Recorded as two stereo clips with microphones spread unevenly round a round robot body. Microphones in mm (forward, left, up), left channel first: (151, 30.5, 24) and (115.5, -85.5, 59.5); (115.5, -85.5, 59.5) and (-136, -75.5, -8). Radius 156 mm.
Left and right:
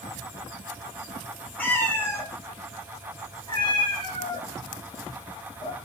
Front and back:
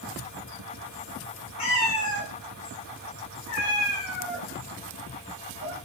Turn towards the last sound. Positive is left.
turn(degrees=35)